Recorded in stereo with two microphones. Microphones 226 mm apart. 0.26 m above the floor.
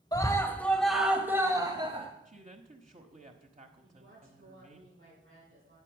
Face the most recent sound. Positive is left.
turn(degrees=-70)  # may be behind; listen again after turning